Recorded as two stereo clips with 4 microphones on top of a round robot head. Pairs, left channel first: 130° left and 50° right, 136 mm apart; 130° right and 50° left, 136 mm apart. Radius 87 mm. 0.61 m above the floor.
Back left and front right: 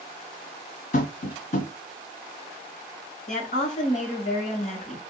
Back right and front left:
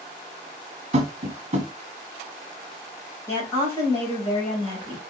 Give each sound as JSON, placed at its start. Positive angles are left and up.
{"t": 0.9, "sound": "tapping", "azimuth_deg": 95, "distance_m": 1.8}
{"t": 3.3, "sound": "a woman speaking", "azimuth_deg": 160, "distance_m": 2.5}